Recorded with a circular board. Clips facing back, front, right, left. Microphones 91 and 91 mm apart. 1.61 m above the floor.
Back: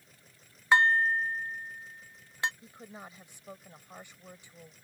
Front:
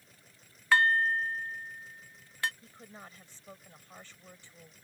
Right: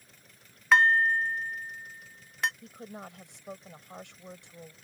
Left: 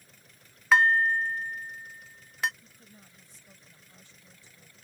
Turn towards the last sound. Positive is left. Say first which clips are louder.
# back 3 dB, right 13 dB
turn(degrees=-105)